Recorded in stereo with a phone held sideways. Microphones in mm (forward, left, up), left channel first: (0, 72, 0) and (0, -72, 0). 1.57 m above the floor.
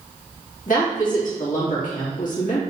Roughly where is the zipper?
I don't hear a zipper.